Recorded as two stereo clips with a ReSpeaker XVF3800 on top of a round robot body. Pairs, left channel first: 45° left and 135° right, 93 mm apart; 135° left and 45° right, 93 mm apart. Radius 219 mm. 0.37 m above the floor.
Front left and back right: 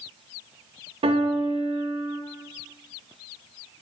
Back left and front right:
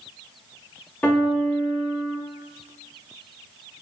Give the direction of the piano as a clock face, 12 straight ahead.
5 o'clock.